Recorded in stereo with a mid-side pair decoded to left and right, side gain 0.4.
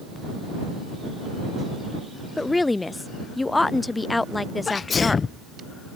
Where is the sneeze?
45° left.